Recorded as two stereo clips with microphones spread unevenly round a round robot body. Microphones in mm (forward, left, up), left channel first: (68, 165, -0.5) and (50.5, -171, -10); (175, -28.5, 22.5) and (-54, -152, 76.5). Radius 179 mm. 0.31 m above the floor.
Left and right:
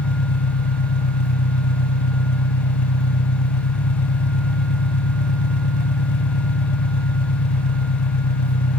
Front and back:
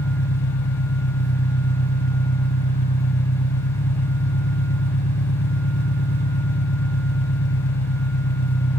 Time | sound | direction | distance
0.0 | an engine running | 70° left | 1.0 m